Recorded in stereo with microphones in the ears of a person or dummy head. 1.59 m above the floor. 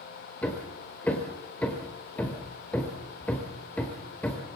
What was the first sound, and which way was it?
Hammering, 5° left (ahead or behind).